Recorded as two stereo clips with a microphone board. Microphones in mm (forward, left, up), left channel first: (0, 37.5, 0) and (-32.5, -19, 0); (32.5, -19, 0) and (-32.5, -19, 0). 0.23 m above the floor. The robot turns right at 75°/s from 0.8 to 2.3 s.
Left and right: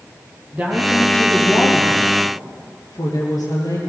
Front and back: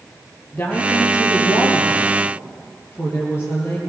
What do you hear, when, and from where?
0.5 s a woman speaking: 60° right, 5.5 m; by 3.8 s 55° left, 5.5 m